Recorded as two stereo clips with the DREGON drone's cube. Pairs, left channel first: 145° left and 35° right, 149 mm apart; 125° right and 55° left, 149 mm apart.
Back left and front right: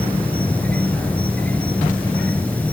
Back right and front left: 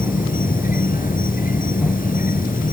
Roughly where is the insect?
Behind right.